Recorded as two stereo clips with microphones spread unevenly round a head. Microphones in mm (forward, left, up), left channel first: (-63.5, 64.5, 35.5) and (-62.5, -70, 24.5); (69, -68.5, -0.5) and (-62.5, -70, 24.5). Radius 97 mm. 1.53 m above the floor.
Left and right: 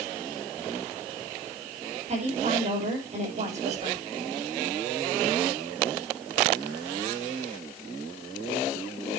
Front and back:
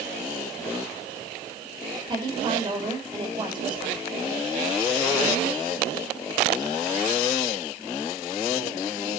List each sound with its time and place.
2.1 s a woman speaking: 125° right, 7 m